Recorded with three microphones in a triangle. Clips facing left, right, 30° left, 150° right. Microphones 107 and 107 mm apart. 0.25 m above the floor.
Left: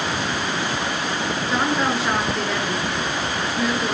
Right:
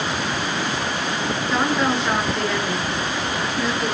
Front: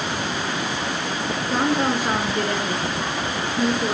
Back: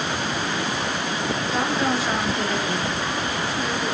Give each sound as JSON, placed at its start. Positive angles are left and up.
{"t": 1.5, "sound": "a woman speaking", "azimuth_deg": 5, "distance_m": 4.0}